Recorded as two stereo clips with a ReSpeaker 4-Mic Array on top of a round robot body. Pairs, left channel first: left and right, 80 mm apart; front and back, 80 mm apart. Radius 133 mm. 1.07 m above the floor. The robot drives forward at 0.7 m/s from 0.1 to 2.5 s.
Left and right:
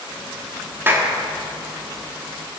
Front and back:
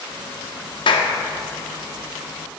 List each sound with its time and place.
0.9 s a clap: 25° right, 1.8 m